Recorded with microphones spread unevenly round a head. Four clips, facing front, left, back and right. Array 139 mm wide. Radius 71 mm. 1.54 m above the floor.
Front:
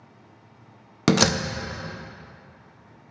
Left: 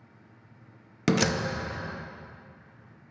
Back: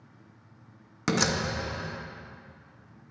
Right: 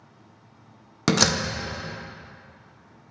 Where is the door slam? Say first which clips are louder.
Right 2 dB, front 7 dB; 5° right, 0.5 m.